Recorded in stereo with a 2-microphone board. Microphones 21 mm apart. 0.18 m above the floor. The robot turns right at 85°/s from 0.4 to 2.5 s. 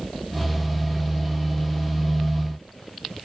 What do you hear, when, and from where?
Only background noise.